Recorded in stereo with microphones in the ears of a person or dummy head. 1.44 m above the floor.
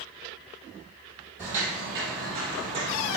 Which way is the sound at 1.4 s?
10° right (ahead or behind).